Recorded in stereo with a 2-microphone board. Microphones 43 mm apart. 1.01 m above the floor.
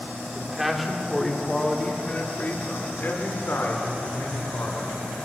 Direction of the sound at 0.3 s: 10° right (ahead or behind).